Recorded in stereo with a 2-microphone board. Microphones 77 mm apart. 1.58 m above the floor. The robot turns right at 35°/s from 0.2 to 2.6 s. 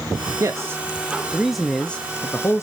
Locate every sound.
0.4 s a man speaking: 40° right, 0.5 m; by 2.6 s 35° left, 0.5 m